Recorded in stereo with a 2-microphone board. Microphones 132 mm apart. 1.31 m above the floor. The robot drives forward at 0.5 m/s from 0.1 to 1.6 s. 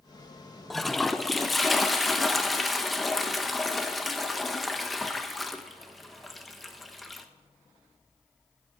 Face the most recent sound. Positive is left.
turn(degrees=0)  # may be behind; listen again after turning